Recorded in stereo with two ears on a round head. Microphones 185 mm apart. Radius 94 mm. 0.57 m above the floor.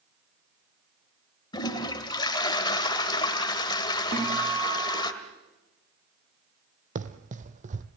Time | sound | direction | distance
1.5 | a toilet flushing | 25° left (ahead or behind) | 1.6 m
4.1 | a guitar | 35° right (ahead or behind) | 8.5 m
7.0 | running footsteps | 40° right (ahead or behind) | 1.2 m